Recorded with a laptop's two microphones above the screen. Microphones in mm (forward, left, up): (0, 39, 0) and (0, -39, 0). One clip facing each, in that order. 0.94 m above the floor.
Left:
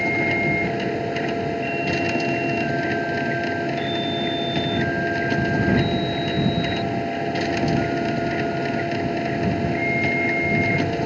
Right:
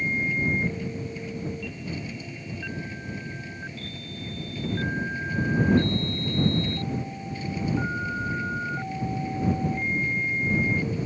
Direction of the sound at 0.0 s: 75° left (ahead or behind).